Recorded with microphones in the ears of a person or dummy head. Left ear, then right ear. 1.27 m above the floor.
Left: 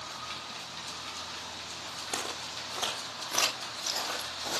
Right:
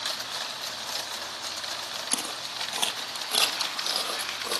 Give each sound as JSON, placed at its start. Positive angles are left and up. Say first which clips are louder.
{"t": 2.1, "sound": "footsteps", "louder": "right 1 dB", "side_deg": -45, "distance_m": 1.7}